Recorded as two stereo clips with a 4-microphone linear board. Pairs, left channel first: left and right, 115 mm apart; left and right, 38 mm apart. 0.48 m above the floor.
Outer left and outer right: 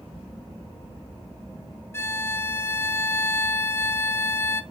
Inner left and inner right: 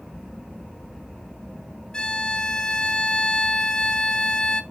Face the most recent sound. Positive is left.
turn(degrees=25)  # may be behind; listen again after turning